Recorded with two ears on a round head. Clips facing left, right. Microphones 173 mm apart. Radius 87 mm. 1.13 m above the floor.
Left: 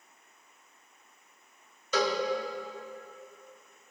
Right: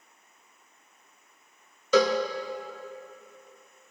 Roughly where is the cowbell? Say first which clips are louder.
Right 7 dB; right.